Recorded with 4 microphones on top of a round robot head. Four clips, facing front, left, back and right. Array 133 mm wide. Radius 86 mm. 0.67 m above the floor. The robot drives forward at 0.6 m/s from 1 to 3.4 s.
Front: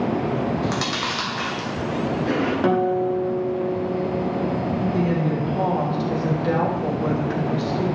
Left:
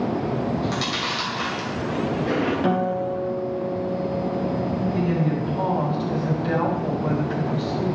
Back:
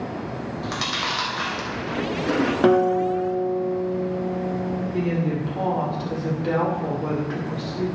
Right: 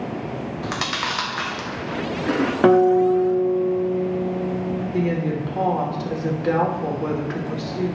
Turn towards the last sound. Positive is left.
turn(degrees=-85)